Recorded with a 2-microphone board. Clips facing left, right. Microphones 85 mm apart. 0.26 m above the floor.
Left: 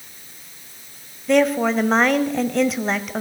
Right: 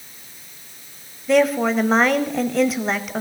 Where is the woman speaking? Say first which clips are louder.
Even; centre (ahead or behind), 0.9 m.